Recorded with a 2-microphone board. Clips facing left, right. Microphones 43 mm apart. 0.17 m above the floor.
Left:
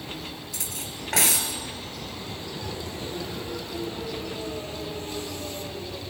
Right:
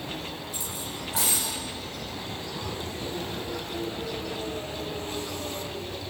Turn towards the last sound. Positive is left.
turn(degrees=65)  # may be behind; listen again after turning